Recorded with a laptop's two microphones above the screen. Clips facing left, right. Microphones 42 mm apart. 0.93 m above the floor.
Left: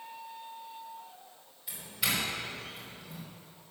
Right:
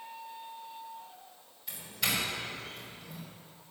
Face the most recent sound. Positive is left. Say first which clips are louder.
# even
turn(degrees=5)  # may be behind; listen again after turning